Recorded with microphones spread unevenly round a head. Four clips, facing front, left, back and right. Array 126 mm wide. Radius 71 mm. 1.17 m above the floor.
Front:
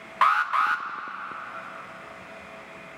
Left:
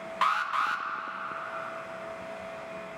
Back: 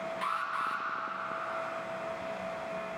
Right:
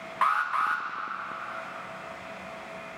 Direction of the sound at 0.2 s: 5° right.